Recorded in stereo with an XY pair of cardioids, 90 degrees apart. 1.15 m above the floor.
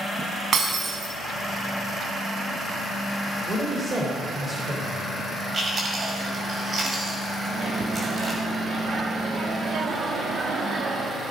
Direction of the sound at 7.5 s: 65° right.